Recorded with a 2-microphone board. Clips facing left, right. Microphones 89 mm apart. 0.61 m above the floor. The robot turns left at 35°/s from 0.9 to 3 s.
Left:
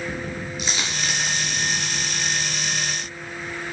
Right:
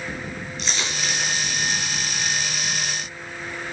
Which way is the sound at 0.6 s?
5° left (ahead or behind).